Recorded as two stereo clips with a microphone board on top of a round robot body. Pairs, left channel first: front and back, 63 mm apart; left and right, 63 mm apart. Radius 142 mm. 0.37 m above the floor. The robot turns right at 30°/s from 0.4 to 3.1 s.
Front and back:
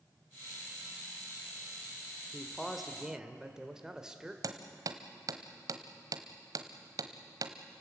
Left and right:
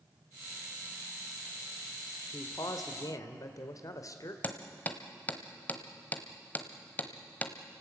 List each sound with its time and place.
2.3 s a man speaking: 80° left, 1.7 m; by 4.3 s 100° left, 1.7 m
4.4 s hammering: 155° left, 1.3 m